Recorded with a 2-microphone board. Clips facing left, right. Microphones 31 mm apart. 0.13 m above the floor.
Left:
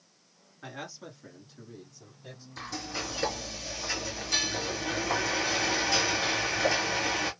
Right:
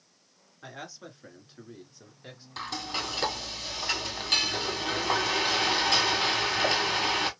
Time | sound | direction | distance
0.6 | a man speaking | 5° right (ahead or behind) | 1.6 m
2.6 | frying | 60° right (ahead or behind) | 1.7 m